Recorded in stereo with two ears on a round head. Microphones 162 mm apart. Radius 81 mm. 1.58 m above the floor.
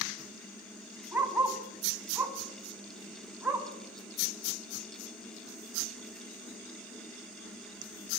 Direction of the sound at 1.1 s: 5° right (ahead or behind).